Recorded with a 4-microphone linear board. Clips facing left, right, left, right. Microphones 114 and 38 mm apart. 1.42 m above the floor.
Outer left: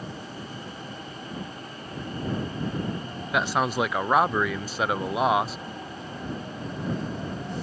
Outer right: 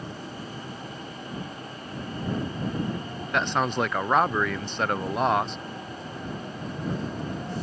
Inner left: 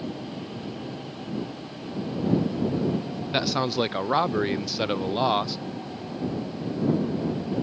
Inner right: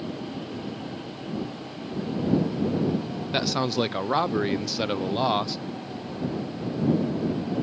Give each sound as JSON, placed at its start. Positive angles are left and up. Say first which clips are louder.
{"t": 3.3, "sound": "a man speaking", "louder": "outer left 1 dB, even", "side_deg": 5}